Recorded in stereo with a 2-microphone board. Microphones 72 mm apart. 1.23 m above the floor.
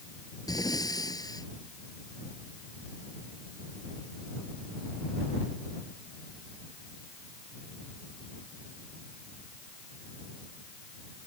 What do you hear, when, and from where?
0.5 s breathing: 60° left (ahead or behind)